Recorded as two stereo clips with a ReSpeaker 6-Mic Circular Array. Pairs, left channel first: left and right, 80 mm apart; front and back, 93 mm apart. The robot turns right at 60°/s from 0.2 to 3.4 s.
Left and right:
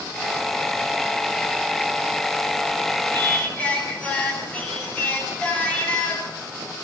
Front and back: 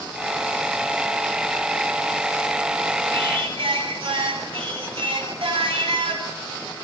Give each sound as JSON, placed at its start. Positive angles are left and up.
{"t": 3.1, "sound": "singing", "azimuth_deg": 150, "distance_m": 9.5}